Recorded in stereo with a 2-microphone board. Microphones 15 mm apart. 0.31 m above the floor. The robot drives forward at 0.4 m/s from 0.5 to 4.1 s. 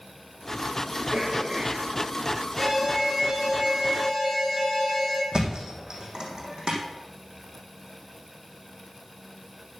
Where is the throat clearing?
55° right (ahead or behind), 3.5 m; by 3.3 s 65° right (ahead or behind), 3 m.